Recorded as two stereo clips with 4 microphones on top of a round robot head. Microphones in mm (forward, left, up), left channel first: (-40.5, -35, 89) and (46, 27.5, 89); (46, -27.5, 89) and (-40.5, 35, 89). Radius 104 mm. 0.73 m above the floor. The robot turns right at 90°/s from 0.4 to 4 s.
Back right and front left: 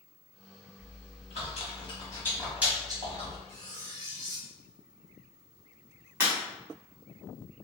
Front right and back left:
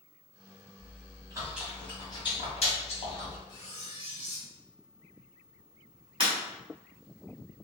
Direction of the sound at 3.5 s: 65° left.